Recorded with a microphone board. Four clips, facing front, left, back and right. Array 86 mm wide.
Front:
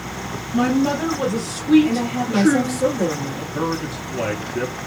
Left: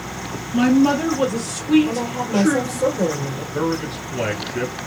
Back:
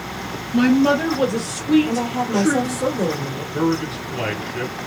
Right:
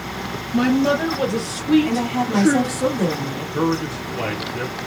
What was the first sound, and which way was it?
A woman speaking, 155° right.